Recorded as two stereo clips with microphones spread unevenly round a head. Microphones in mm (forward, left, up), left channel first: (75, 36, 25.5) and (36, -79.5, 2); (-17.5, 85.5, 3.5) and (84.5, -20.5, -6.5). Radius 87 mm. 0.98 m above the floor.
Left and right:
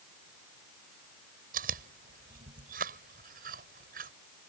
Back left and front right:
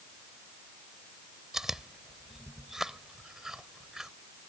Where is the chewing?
135° right.